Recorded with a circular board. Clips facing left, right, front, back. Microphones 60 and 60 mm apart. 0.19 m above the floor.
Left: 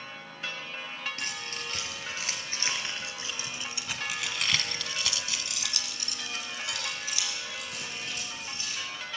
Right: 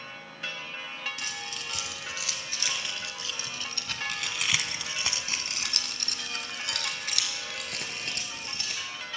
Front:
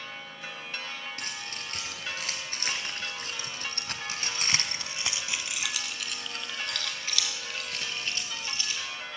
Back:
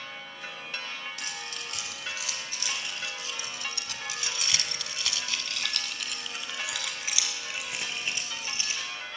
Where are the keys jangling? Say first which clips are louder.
Left 1 dB, even; 45° left, 3 m; by 8.8 s 115° right, 3 m.